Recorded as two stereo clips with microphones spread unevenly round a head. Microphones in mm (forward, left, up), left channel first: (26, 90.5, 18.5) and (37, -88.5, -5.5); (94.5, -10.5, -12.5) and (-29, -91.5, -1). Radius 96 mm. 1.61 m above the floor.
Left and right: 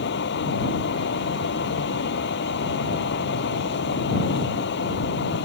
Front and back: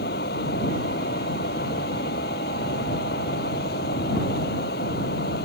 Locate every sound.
0.0 s a fan: 75° left